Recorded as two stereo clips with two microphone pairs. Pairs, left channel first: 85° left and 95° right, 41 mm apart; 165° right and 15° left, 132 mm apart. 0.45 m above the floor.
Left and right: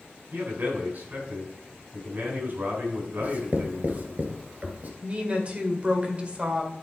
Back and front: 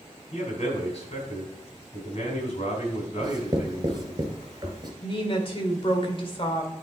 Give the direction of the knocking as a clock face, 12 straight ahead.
I don't hear knocking.